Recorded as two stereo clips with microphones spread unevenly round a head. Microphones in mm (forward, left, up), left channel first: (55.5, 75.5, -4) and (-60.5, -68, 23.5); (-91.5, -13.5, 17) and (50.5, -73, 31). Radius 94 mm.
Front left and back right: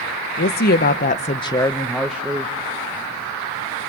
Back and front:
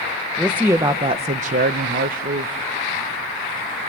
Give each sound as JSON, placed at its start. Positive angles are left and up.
{"t": 0.4, "sound": "a woman speaking", "azimuth_deg": 65, "distance_m": 1.3}